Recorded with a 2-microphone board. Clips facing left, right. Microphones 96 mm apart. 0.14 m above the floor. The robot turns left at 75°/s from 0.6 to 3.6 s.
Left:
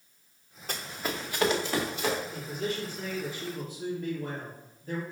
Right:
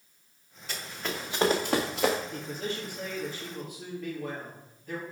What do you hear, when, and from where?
0.7 s running footsteps: 45° left (ahead or behind), 1.4 m; by 2.2 s 80° right, 2.0 m
2.3 s a man speaking: 120° right, 3.5 m; by 5.0 s 140° left, 3.5 m